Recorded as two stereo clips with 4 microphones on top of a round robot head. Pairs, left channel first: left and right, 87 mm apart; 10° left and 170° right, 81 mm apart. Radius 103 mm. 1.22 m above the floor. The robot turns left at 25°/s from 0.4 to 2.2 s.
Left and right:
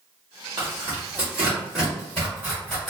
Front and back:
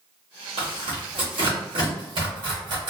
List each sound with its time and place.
0.6 s tearing paper: 150° right, 1.6 m; by 2.9 s 170° left, 1.6 m